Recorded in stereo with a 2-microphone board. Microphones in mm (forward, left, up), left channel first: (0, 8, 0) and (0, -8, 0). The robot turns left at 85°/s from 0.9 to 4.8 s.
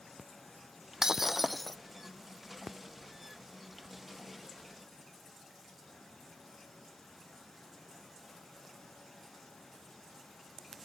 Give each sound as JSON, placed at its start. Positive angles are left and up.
{"t": 1.0, "sound": "breaking glass", "azimuth_deg": -130}